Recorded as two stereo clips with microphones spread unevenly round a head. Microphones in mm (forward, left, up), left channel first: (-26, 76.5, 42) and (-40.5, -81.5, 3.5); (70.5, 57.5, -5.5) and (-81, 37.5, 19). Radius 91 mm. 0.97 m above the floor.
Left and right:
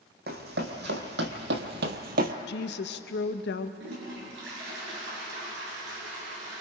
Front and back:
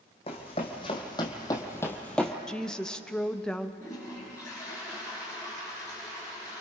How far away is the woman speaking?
About 1.1 m.